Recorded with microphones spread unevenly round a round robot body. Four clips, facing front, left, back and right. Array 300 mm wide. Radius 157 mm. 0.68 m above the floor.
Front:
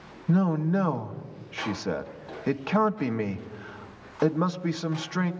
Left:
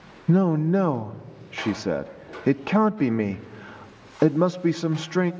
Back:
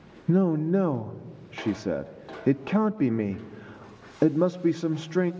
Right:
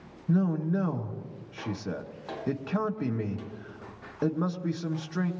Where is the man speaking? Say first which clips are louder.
Left 7 dB, back 2 dB; 110° left, 0.7 m.